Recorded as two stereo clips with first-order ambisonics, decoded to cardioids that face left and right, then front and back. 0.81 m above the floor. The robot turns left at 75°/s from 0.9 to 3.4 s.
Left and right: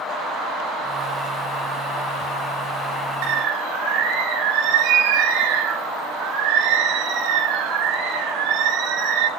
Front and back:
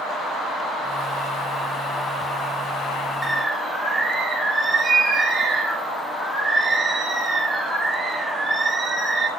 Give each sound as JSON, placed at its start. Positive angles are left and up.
{"t": 3.2, "sound": "a bird", "azimuth_deg": -90, "distance_m": 2.5}